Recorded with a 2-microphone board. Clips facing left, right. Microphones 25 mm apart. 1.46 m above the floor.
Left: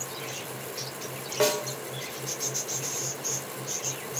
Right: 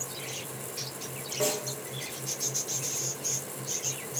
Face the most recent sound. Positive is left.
turn(degrees=50)  # may be behind; listen again after turning